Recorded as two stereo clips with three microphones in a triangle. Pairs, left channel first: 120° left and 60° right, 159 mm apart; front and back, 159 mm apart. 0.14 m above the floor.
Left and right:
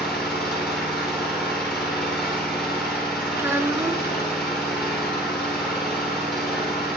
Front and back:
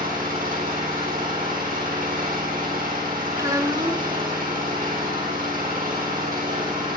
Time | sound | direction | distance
0.0 | an engine running | 155° right | 8.5 m
3.4 | a child speaking | 125° right | 0.8 m